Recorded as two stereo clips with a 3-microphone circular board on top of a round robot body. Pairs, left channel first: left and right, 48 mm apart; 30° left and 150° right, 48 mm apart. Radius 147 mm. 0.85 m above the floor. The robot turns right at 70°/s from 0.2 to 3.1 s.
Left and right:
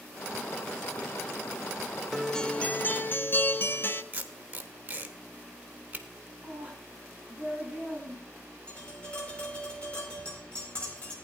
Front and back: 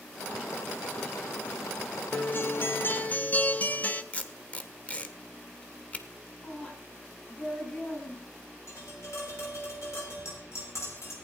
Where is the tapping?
25° left, 7 m.